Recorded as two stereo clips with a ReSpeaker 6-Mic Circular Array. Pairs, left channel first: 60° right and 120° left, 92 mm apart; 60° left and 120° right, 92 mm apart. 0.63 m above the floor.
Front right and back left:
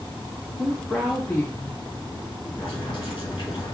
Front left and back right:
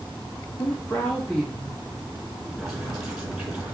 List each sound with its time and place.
0.6 s a woman speaking: 55° left, 1.1 m; by 2.5 s 60° right, 1.3 m
2.6 s boiling: 30° right, 2 m